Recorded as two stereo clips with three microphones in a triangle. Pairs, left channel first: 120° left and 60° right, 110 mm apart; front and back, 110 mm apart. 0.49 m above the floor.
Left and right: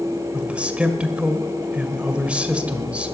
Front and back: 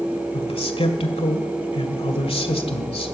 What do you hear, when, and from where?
0.3 s a man speaking: 20° left, 1.7 m